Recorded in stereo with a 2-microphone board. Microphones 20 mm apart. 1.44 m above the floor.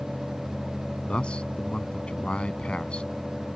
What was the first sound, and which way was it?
A man speaking, 70° left (ahead or behind).